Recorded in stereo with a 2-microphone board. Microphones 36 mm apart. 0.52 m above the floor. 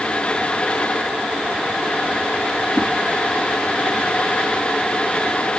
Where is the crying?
No crying in this recording.